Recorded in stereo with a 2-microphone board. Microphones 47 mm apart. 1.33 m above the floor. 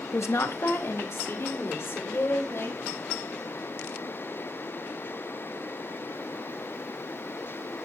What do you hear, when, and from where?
0.1 s a woman speaking: 85° left, 1.7 m; by 2.8 s 65° left (ahead or behind), 5 m